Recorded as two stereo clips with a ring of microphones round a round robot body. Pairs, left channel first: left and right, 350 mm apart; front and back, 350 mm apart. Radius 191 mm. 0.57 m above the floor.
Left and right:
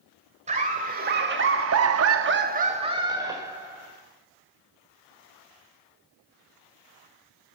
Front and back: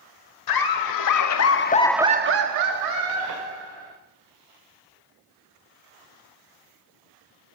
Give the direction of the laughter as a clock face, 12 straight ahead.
1 o'clock.